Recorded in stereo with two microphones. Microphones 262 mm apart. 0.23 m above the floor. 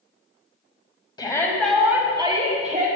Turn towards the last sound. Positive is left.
turn(degrees=-35)  # may be behind; listen again after turning